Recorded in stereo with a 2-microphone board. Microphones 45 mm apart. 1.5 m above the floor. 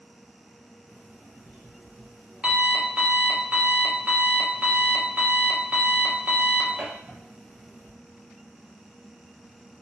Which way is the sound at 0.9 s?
30° right (ahead or behind).